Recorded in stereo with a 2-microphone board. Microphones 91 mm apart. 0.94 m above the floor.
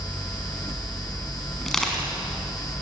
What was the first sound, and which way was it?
Crushing, 5° left (ahead or behind).